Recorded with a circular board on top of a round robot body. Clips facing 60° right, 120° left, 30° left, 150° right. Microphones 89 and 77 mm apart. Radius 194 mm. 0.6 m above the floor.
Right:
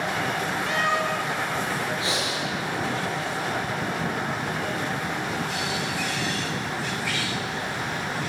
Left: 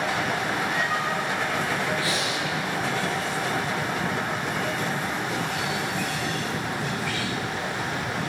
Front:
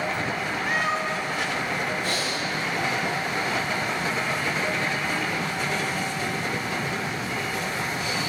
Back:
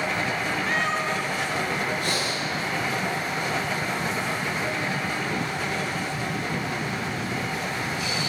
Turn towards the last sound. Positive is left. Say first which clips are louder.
# left 1 dB, even
turn(degrees=-130)